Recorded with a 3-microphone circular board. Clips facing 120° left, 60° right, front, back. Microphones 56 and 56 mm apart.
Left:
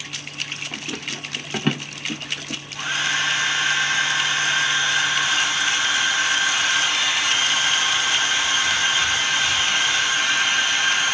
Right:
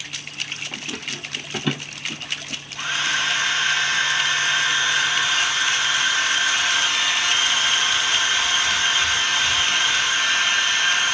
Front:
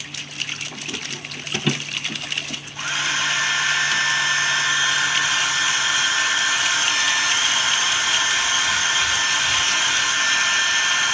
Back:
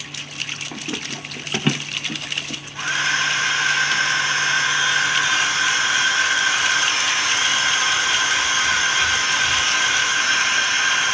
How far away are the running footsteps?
About 0.8 m.